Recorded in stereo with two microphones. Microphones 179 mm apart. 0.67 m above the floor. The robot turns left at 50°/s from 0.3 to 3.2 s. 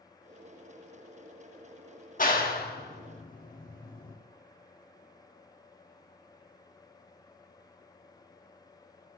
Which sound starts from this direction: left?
A clap, at 2.2 s.